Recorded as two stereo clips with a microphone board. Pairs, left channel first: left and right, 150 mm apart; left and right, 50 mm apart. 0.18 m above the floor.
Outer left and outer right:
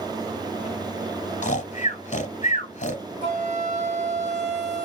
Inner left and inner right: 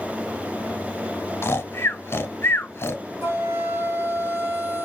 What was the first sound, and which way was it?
Snoring, 50° left (ahead or behind).